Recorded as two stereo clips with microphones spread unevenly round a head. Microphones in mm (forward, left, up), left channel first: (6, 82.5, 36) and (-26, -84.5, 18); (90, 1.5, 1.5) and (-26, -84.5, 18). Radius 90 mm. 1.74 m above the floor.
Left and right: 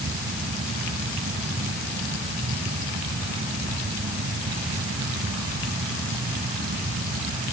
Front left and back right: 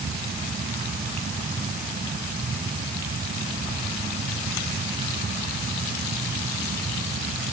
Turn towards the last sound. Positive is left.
No sound to turn to.